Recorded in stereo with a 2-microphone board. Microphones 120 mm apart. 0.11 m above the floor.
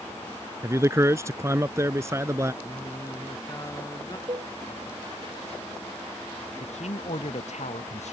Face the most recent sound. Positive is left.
turn(degrees=70)  # may be behind; listen again after turning